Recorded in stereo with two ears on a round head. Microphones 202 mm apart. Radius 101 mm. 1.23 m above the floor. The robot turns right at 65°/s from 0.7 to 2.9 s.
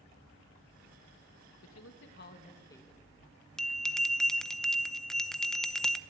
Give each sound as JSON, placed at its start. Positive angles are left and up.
{"t": 1.6, "sound": "a man speaking", "azimuth_deg": 90, "distance_m": 2.0}
{"t": 3.6, "sound": "a bell", "side_deg": 0, "distance_m": 0.8}